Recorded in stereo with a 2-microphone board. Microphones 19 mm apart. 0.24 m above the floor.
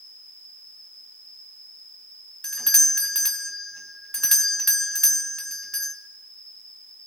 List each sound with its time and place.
0.0 s an insect: 40° left (ahead or behind), 7.5 m
2.4 s a doorbell: 30° left (ahead or behind), 1.9 m